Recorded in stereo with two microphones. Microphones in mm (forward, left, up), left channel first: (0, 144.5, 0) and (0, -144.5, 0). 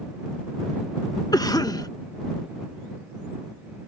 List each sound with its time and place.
1.3 s a cough: 15° left (ahead or behind)